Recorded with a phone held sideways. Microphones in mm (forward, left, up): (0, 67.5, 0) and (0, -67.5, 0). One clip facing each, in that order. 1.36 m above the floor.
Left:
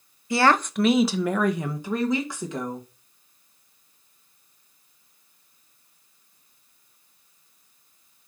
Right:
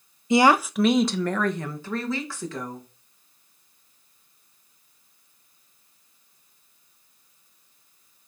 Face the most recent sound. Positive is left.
turn(degrees=20)  # may be behind; listen again after turning